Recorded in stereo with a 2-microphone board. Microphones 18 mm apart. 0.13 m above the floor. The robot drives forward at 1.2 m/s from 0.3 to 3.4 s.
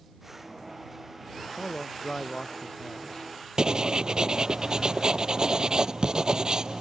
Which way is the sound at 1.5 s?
70° left (ahead or behind).